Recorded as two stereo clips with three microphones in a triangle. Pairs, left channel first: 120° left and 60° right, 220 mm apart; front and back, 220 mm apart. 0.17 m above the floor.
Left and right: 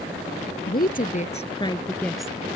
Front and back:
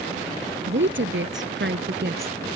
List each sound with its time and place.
0.7 s a woman speaking: 160° left; by 2.4 s 145° right